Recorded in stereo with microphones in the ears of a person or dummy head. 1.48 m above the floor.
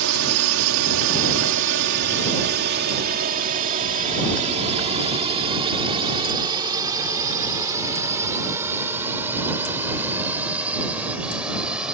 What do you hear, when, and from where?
0.0 s a drone: 80° right; by 11.9 s 5° right (ahead or behind)